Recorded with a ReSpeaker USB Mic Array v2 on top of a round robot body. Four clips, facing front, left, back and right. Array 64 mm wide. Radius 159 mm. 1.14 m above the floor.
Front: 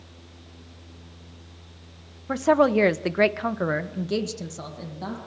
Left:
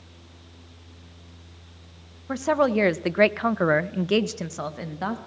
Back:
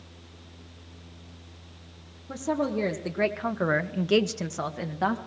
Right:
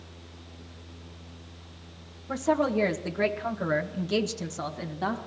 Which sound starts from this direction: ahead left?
A woman speaking, at 2.3 s.